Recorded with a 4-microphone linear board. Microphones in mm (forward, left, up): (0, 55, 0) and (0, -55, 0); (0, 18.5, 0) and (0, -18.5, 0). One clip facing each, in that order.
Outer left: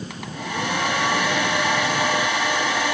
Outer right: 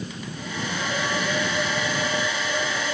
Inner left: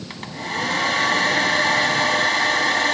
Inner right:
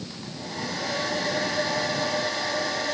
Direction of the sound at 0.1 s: 70° left (ahead or behind).